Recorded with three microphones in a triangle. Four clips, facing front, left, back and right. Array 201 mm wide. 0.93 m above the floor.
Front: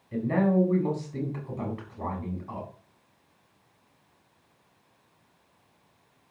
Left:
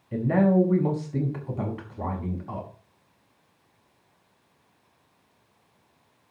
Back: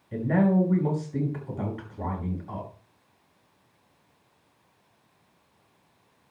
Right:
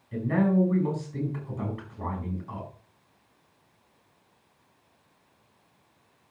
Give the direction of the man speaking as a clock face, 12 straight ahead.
8 o'clock.